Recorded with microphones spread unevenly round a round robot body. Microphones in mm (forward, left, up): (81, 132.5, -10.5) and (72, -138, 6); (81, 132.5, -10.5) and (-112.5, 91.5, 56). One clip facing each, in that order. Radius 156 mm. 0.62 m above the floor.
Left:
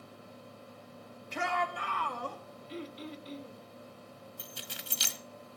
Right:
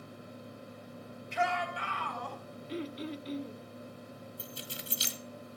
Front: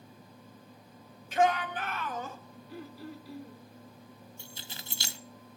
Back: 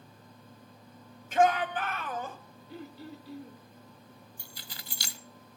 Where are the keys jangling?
70° left, 1.0 m.